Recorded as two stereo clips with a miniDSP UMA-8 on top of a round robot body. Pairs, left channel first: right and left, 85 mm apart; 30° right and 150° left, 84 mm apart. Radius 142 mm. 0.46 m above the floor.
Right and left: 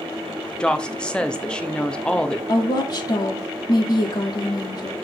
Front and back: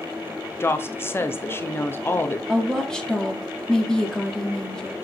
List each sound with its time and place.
0.6 s a woman speaking: 25° right, 0.8 m
2.5 s a woman speaking: 115° right, 1.5 m